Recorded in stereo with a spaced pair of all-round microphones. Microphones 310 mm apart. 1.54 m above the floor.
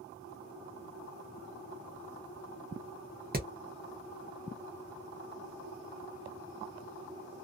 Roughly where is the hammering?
Right.